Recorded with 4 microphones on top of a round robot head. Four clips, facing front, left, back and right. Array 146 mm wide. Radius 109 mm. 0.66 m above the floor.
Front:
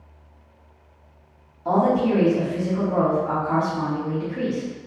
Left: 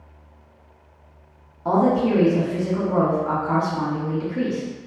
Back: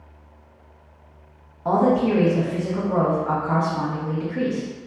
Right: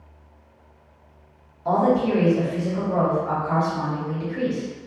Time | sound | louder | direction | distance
1.6 | a woman speaking | left 1 dB, back 1 dB | 140° left | 1.2 m